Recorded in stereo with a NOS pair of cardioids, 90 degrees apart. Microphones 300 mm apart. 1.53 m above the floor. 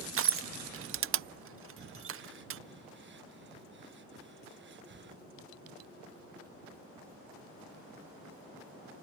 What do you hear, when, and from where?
0.2 s crushing: 45° right
1.8 s breathing: 35° right